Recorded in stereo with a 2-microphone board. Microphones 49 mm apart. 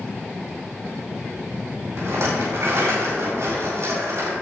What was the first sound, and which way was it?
A rattle, 70° right (ahead or behind).